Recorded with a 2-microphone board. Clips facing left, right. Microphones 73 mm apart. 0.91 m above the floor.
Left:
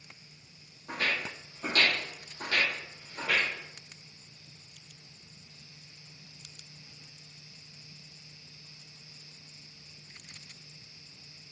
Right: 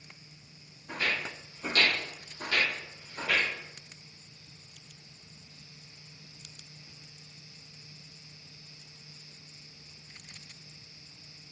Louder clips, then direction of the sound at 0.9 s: Even; 55° left (ahead or behind).